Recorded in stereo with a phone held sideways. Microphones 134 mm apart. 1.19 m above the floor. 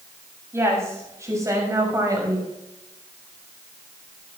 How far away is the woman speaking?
About 7.5 m.